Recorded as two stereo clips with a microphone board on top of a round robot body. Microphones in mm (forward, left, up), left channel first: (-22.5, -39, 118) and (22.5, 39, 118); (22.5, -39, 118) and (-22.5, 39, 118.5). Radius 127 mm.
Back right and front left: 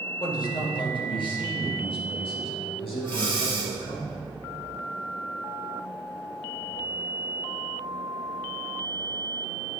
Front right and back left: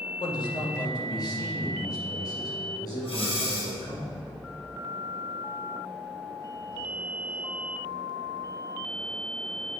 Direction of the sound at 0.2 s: 90° right.